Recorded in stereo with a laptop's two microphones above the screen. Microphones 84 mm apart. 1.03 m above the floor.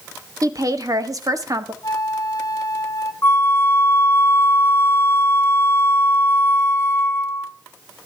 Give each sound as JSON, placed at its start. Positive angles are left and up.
{"t": 0.4, "sound": "a woman speaking", "side_deg": -50, "distance_m": 1.4}
{"t": 1.8, "sound": "a flute", "side_deg": 50, "distance_m": 1.3}
{"t": 3.2, "sound": "a flute", "side_deg": 35, "distance_m": 0.6}